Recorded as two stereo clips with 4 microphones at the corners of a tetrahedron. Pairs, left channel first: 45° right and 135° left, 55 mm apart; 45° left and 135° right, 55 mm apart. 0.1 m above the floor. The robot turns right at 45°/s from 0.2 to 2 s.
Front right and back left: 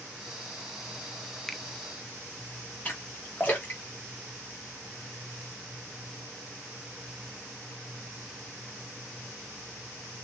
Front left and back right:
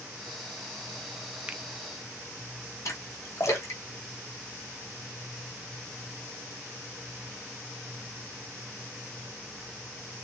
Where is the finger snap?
125° right, 0.8 m; by 1.6 s 120° right, 0.8 m.